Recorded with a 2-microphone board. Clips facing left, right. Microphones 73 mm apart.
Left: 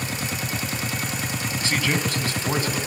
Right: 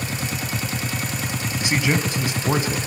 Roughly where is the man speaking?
Centre.